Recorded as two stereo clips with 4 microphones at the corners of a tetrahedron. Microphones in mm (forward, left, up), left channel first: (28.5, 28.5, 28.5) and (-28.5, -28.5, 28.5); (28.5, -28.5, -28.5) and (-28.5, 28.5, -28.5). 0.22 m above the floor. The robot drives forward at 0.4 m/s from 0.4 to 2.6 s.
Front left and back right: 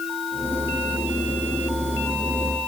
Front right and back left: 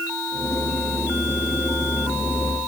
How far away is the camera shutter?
No camera shutter in this recording.